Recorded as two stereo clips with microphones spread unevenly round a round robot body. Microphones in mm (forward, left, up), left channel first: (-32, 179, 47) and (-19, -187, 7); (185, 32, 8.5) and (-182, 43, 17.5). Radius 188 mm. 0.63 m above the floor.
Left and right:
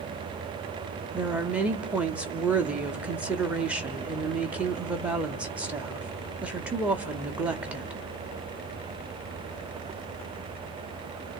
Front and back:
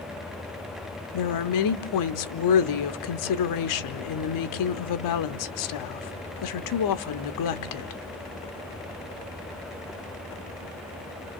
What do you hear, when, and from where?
1.1 s a woman speaking: 5° right, 0.8 m